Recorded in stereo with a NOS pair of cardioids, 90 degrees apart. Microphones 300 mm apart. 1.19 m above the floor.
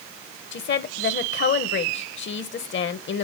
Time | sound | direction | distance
0.5 | a woman speaking | 40° left | 0.8 m